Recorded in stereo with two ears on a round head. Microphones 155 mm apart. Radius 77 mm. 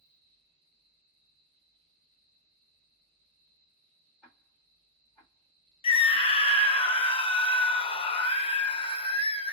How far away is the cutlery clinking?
I don't hear cutlery clinking.